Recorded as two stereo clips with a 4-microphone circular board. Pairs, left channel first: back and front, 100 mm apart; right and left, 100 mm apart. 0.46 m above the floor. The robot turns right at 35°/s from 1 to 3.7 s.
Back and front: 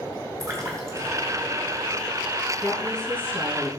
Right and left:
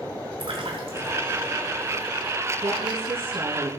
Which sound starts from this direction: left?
A woman speaking, at 2.6 s.